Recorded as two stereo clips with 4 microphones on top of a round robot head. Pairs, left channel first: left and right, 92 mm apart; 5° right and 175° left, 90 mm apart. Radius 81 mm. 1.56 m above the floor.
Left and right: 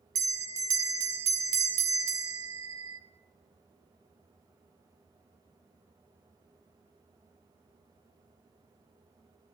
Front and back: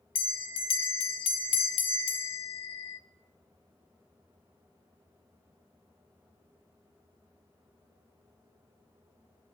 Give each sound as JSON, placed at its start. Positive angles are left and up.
{"t": 0.1, "sound": "a bell", "azimuth_deg": -30, "distance_m": 0.7}